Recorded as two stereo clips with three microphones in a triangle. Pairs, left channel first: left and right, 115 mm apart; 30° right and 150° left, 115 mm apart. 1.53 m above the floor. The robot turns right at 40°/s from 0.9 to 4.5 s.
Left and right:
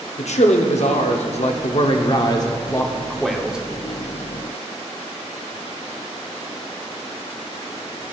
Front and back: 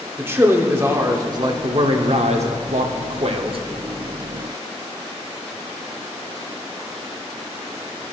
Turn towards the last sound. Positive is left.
turn(degrees=-135)